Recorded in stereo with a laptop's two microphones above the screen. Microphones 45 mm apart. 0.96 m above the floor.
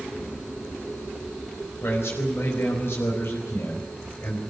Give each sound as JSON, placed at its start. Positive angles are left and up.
{"t": 1.8, "sound": "a man speaking", "side_deg": 60, "distance_m": 4.5}